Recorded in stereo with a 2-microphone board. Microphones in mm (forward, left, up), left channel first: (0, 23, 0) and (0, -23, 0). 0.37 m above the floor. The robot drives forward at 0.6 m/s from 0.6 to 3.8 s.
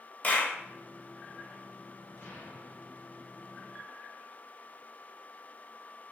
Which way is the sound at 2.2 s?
50° left (ahead or behind).